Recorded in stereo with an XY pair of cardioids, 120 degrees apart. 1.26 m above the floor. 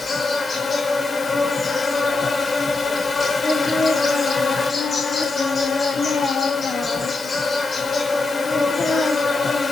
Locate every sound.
0.0 s an insect: 25° left, 1.0 m
3.4 s singing: 30° left, 1.2 m